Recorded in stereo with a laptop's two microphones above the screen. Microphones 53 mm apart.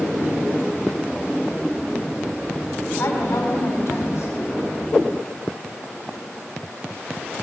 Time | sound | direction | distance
3.0 | a woman speaking | 80° left | 2.5 m